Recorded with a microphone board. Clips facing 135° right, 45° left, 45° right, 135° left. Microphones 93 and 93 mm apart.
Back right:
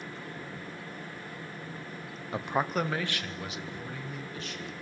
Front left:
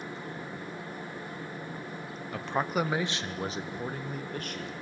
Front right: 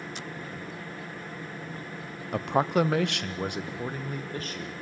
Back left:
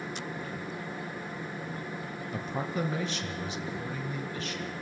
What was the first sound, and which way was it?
A man speaking, 70° right.